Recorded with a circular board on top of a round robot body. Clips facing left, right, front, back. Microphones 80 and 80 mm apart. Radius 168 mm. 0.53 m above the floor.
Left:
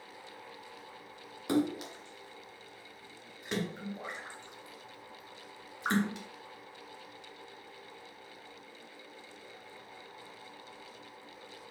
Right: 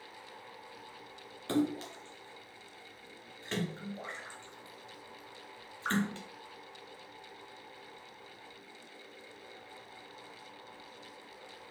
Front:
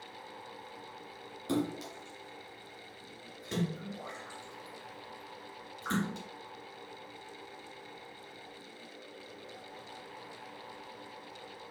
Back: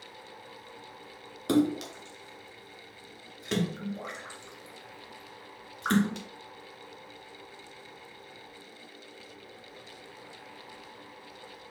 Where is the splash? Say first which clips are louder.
Left 1 dB, back 8 dB; 165° left, 2.5 m.